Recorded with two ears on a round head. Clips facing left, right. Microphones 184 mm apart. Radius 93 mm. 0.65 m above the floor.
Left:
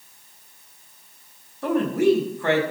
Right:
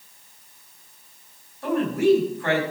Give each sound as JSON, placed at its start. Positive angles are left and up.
{"t": 1.6, "sound": "a woman speaking", "side_deg": 80, "distance_m": 4.5}